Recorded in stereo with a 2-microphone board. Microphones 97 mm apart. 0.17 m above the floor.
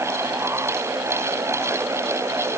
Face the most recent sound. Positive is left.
No sound to turn to.